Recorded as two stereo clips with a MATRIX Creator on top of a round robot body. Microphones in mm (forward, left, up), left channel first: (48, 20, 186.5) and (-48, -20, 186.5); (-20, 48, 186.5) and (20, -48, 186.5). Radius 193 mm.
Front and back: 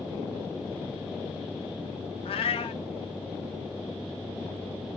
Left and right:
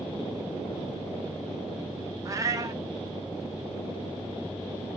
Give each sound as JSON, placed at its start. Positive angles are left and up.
{"t": 2.2, "sound": "a cat meowing", "azimuth_deg": -10, "distance_m": 0.5}